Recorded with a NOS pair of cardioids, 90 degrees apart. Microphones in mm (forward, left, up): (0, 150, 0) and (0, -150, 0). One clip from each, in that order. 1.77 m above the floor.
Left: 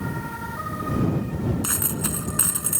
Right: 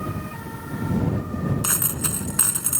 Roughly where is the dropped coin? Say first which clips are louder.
Right 1 dB; ahead right.